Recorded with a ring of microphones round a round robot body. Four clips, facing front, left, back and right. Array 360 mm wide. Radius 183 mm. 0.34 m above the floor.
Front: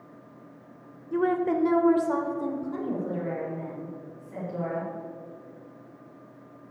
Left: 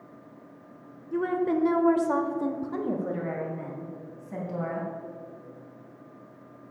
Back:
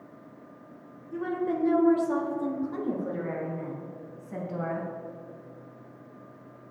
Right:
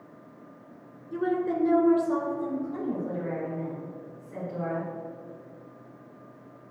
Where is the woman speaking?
10° left, 1.3 m; by 4.9 s 120° left, 3 m.